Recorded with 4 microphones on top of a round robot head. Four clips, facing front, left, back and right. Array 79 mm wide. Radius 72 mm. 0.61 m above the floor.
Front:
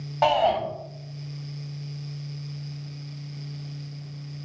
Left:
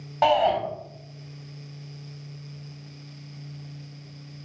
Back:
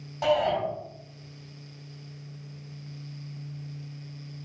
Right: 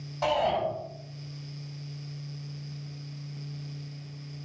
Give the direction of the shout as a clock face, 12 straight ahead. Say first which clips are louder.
Left 6 dB, front 4 dB; 10 o'clock.